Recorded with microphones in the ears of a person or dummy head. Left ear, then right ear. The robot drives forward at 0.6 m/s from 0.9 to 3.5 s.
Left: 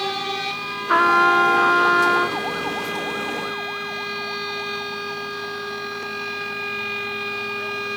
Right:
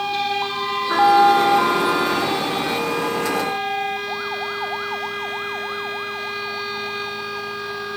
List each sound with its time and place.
0.9 s a trumpet: 70° left (ahead or behind)